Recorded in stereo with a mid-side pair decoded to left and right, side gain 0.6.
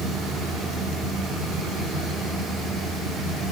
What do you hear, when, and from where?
0.0 s a fan: 50° right, 1.2 m